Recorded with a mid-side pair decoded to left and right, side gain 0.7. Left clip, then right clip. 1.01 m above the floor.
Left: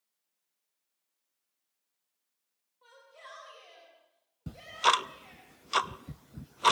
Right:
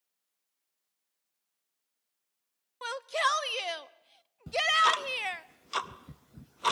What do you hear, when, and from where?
2.8 s a shout: 70° right, 1.1 m
4.5 s ticking: 20° left, 0.6 m